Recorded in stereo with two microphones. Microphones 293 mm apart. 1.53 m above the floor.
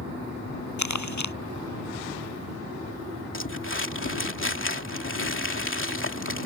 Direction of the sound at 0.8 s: 70° left (ahead or behind).